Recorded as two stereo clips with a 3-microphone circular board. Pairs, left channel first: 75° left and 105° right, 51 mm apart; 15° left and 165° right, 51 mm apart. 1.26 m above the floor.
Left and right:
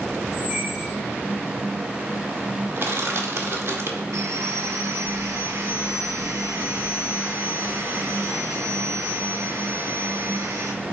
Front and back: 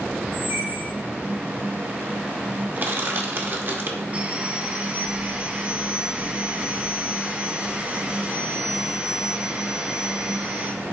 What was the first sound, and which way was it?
A squeak, 150° right.